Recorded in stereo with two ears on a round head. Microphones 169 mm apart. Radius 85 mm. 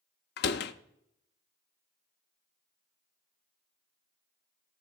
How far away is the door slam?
About 0.7 m.